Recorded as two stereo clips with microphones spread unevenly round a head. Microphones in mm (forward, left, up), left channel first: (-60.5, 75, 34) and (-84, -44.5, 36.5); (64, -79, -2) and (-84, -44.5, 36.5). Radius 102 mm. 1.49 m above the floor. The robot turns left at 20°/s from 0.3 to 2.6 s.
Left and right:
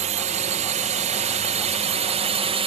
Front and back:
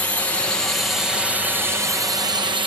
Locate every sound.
0.0 s a drone: 85° right; by 2.7 s 130° right